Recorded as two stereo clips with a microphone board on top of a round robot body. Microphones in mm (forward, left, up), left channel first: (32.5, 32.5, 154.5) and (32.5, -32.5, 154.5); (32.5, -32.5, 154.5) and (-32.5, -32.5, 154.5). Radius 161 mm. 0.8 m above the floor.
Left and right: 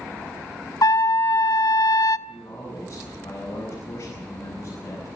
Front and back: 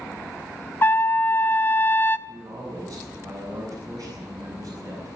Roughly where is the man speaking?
Behind left.